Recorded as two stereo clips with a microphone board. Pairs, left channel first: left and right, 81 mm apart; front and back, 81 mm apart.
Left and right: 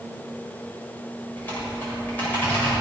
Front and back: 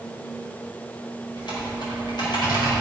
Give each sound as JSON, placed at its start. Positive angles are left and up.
{"t": 1.4, "sound": "typing on a keyboard", "azimuth_deg": 20, "distance_m": 5.0}